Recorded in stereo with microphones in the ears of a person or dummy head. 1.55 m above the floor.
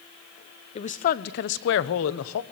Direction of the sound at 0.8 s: 35° left (ahead or behind).